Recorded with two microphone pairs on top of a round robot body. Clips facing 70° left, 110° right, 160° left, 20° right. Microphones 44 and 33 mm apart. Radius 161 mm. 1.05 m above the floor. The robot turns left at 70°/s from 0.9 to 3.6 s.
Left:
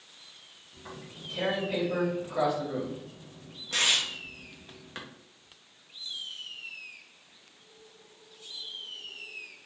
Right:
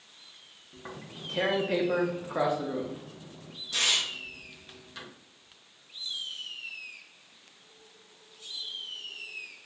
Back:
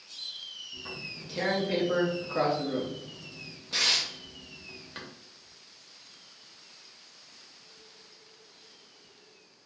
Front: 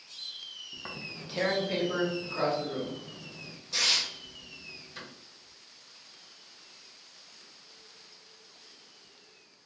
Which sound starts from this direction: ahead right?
Tearing paper, at 0.7 s.